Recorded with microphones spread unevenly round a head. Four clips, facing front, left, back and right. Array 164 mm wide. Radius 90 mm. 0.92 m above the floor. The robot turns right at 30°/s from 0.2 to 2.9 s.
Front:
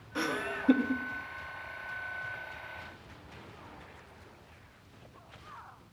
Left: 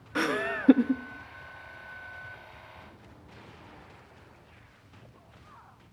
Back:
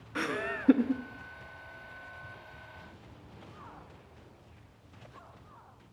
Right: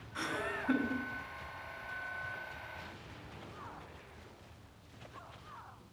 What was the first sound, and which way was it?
Laughter, 90° left.